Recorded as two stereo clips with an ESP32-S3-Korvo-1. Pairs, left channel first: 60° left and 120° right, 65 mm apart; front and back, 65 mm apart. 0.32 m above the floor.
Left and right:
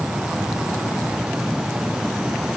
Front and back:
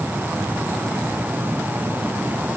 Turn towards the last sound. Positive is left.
No sound to turn to.